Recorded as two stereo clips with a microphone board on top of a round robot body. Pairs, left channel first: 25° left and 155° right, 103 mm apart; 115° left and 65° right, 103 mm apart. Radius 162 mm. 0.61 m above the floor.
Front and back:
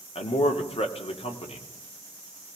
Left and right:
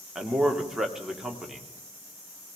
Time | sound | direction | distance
0.1 | a man speaking | 15° left | 1.9 m